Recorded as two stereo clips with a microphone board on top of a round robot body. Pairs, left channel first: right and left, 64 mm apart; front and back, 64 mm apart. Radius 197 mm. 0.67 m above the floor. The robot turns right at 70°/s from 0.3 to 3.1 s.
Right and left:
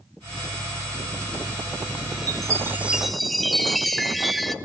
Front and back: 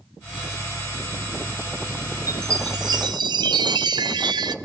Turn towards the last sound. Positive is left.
turn(degrees=180)